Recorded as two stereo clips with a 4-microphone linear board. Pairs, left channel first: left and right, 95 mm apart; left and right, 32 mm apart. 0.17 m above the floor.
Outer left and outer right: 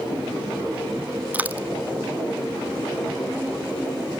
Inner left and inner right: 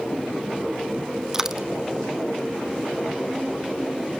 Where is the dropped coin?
15° right (ahead or behind), 1.1 m.